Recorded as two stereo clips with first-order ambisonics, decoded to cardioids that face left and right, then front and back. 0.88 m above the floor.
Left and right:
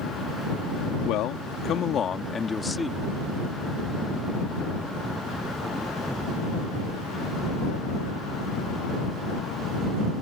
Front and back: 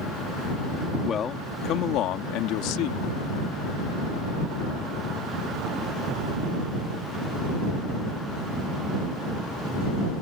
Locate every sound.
1.1 s a man speaking: 60° left; by 3.0 s 5° left